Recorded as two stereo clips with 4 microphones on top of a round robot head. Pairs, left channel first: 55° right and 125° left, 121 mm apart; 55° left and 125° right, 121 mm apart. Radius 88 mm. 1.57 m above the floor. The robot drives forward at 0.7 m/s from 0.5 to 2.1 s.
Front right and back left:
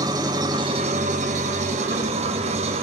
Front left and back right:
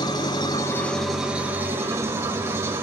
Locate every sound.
0.0 s an engine running: 90° left, 0.7 m; by 2.8 s 165° left, 1.3 m